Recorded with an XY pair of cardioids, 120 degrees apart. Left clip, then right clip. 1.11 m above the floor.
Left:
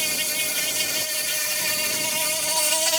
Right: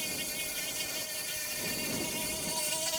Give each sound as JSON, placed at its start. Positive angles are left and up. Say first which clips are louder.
{"t": 0.0, "sound": "an insect", "louder": "left 11 dB", "azimuth_deg": 70}